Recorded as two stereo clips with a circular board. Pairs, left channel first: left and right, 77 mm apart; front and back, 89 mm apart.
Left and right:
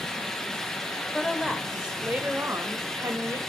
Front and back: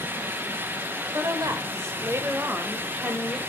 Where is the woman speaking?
170° left, 1.2 m; by 3.4 s 105° right, 1.4 m.